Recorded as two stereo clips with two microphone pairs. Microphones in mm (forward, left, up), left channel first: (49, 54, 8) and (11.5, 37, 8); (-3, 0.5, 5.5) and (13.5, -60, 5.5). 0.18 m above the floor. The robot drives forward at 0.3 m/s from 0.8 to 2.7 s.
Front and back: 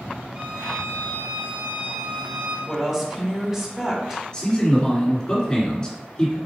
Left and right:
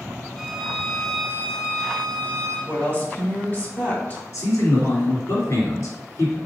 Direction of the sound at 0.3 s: 170° right.